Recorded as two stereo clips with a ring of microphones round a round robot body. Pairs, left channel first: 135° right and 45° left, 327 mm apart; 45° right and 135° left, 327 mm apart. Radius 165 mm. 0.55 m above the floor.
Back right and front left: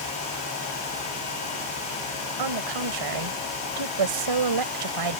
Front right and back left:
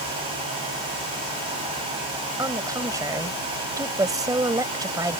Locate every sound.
2.4 s a woman speaking: 55° left